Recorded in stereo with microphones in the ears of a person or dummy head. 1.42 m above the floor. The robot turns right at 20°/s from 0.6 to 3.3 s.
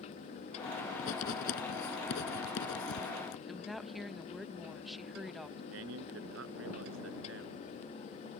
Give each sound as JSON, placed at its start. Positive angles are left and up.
{"t": 1.0, "sound": "writing", "side_deg": 45}
{"t": 3.5, "sound": "a woman speaking", "side_deg": -5}
{"t": 5.7, "sound": "a man speaking", "side_deg": -65}